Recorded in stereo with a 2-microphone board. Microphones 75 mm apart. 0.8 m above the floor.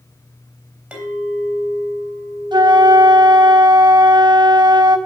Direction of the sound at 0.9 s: 15° right (ahead or behind).